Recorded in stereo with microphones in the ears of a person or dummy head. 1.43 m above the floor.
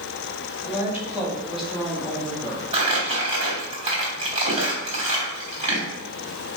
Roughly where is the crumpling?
Right.